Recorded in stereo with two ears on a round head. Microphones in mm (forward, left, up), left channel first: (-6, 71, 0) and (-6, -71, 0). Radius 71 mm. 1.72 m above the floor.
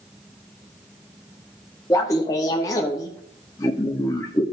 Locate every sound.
1.9 s laughter: 20° left (ahead or behind), 0.7 m